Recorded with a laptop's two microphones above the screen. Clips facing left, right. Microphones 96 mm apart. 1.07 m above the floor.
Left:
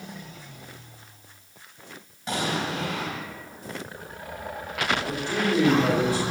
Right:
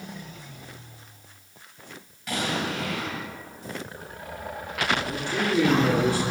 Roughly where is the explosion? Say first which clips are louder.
Left 1 dB; left.